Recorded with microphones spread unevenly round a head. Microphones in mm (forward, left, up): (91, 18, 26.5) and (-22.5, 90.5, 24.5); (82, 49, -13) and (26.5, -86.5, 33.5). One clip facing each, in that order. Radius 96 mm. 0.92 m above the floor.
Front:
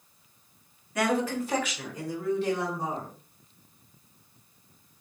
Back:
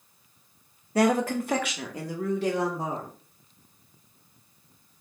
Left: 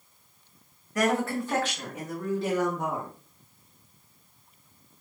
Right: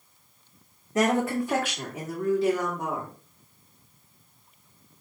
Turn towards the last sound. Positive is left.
turn(degrees=150)